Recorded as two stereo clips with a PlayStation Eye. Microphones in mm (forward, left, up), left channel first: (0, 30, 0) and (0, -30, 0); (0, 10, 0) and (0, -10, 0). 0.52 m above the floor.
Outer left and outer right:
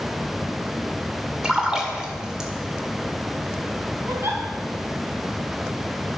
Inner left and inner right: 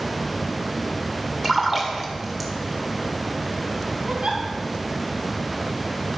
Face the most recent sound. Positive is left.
turn(degrees=-50)  # may be behind; listen again after turning